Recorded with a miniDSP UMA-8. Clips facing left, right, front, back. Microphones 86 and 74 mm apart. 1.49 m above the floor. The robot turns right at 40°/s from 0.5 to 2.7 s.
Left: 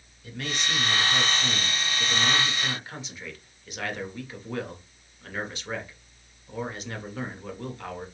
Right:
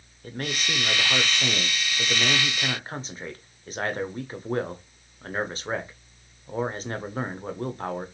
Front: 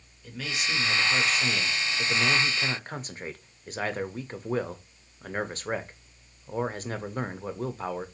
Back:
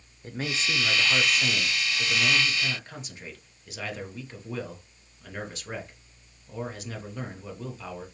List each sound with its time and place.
0.2 s a man speaking: 130° right, 0.6 m; by 8.1 s 45° right, 0.6 m